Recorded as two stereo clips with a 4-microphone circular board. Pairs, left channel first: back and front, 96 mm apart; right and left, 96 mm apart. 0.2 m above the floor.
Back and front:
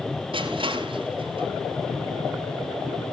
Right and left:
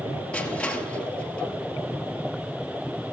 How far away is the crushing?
About 2.5 m.